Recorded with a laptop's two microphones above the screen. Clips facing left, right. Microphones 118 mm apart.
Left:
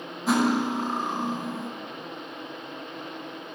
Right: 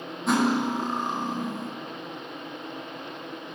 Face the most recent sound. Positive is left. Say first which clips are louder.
# even
turn(degrees=5)  # may be behind; listen again after turning